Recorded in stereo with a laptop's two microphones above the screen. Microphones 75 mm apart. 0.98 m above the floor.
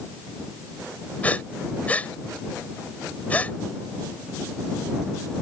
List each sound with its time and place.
1.2 s breathing: 20° left (ahead or behind)